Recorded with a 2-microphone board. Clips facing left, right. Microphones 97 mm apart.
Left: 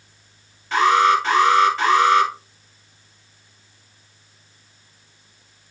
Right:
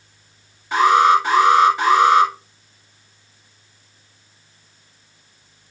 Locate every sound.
0.7 s an alarm: 15° right (ahead or behind), 3.5 m